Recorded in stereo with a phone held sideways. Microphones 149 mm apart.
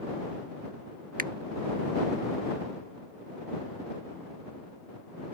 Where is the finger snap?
75° right (ahead or behind).